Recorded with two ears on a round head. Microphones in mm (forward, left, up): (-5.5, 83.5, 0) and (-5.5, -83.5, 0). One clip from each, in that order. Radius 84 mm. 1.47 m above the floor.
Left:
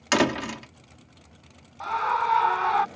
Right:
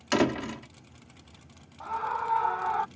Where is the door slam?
30° left (ahead or behind).